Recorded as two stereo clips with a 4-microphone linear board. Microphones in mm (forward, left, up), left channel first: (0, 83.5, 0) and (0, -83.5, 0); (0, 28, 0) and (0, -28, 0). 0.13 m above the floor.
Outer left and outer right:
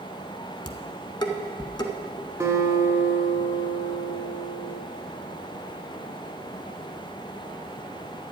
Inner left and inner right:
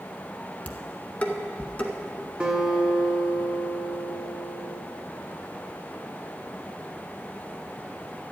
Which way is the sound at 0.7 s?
25° left (ahead or behind).